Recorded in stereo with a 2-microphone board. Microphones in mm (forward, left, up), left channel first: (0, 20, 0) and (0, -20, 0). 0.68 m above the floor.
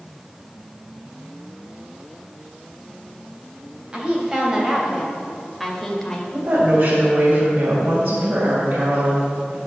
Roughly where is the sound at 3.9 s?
Right.